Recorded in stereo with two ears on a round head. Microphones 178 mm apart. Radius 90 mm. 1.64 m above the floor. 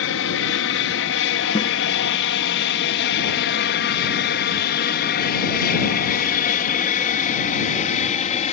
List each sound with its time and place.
0.0 s an aircraft: 70° left (ahead or behind); by 8.5 s 35° left (ahead or behind)
1.6 s a snare drum: 25° left (ahead or behind)